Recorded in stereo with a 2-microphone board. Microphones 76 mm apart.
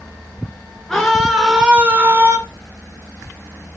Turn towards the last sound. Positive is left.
turn(degrees=-35)  # may be behind; listen again after turning